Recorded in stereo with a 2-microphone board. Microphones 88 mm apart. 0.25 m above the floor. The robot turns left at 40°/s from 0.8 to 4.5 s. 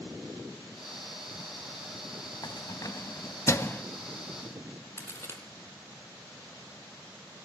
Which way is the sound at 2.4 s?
50° left (ahead or behind).